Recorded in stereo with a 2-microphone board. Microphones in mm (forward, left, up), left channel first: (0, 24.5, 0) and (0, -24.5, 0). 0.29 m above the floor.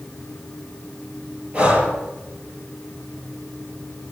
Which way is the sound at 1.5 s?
30° right (ahead or behind).